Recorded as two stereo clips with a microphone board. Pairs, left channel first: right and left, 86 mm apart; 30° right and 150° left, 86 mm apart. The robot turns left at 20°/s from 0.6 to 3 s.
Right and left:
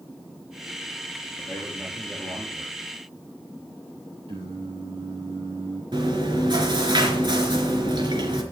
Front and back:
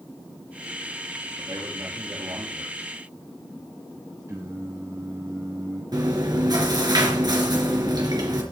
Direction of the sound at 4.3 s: 100° left.